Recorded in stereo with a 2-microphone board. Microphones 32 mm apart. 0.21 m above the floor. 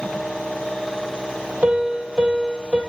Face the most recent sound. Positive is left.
turn(degrees=-35)  # may be behind; listen again after turning